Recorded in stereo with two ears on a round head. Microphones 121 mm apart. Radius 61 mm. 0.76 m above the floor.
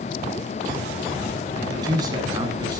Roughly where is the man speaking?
Right.